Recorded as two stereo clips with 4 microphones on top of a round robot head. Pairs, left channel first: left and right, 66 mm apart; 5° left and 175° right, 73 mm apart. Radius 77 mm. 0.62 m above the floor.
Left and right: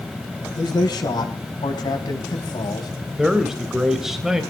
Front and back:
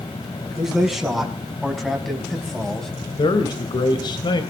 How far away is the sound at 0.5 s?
About 5.5 m.